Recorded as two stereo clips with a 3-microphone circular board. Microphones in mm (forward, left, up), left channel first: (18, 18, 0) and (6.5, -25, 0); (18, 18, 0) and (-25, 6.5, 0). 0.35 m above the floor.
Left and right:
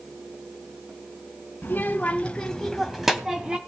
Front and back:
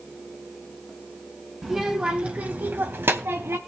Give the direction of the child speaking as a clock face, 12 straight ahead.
8 o'clock.